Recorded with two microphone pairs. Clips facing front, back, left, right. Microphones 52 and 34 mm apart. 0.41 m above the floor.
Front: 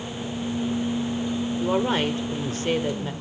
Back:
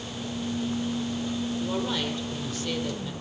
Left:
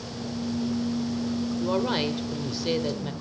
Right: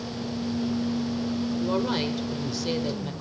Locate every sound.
1.6 s a woman speaking: 15° left, 1.3 m